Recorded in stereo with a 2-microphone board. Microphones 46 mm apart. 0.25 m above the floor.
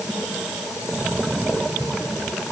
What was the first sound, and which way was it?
Only background noise.